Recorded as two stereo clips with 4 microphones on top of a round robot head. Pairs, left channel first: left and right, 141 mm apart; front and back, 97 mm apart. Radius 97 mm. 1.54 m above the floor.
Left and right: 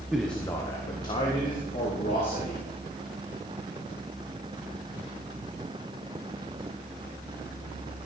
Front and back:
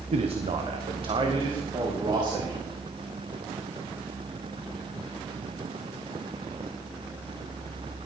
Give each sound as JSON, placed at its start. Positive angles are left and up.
{"t": 0.1, "sound": "a man speaking", "azimuth_deg": -175, "distance_m": 0.9}